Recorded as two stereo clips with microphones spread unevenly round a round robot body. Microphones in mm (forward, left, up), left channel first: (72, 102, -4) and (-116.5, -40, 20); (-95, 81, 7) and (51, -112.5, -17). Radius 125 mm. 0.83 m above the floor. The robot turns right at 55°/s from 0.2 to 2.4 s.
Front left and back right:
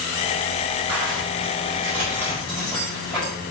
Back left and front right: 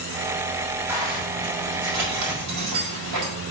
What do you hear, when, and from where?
0.9 s a zipper: 135° right, 4.5 m; by 3.3 s 50° right, 4.5 m